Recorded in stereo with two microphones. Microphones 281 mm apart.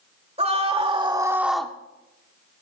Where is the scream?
25° right (ahead or behind), 2 m; by 1.7 s 5° left (ahead or behind), 1.1 m.